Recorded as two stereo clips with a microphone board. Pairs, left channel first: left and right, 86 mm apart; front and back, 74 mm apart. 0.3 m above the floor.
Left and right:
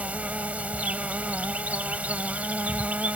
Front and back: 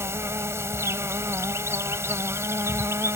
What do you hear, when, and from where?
0.0 s an insect: 155° right